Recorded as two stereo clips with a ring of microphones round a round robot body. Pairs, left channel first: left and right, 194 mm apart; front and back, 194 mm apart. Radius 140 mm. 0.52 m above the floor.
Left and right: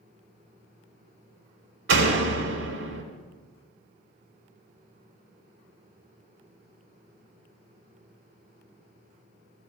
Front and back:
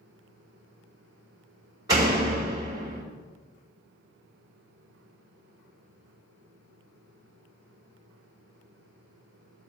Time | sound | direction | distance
1.9 | a door slam | 105° right | 2 m